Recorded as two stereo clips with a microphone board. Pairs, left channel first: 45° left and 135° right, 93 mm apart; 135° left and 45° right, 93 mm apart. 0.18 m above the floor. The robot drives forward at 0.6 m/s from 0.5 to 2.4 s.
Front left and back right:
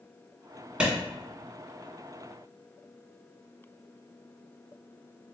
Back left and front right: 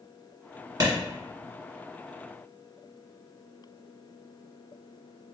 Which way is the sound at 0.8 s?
60° right.